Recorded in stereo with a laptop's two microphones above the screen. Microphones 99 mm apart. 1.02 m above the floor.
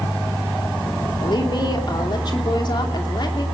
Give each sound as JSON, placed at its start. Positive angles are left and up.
{"t": 1.2, "sound": "a woman speaking", "side_deg": 50, "distance_m": 3.0}